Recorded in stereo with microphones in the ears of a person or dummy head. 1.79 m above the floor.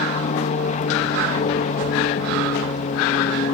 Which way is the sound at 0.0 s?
45° left (ahead or behind).